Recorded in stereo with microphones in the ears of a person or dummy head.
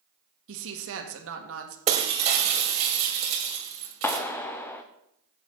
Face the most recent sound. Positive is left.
turn(degrees=10)  # may be behind; listen again after turning